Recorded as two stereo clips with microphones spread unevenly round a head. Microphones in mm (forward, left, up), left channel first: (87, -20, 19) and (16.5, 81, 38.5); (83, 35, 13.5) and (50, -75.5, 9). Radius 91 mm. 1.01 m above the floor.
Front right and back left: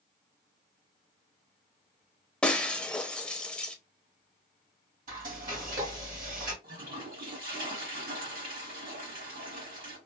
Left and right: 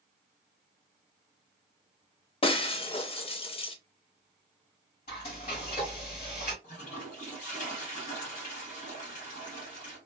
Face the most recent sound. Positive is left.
turn(degrees=120)